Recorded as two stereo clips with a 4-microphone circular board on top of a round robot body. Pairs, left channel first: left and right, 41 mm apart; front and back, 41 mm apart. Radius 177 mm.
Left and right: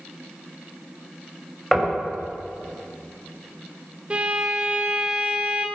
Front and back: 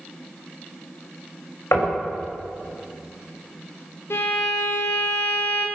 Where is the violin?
25° right, 0.7 m.